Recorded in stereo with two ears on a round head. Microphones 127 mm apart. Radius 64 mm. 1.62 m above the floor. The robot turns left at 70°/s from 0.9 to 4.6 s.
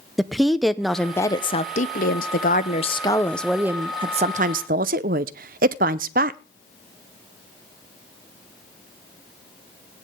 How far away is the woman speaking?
About 0.7 m.